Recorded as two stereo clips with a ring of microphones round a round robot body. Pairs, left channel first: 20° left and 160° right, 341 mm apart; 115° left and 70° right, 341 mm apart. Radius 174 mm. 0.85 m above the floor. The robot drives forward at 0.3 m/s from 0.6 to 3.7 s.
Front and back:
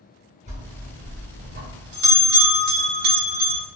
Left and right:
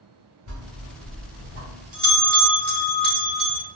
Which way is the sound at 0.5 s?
95° right.